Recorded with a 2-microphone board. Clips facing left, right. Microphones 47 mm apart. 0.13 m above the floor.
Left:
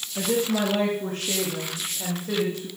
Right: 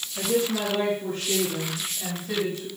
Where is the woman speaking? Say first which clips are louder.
Left 1 dB; 70° left (ahead or behind), 6 m; by 2.7 s 65° left (ahead or behind), 7.5 m.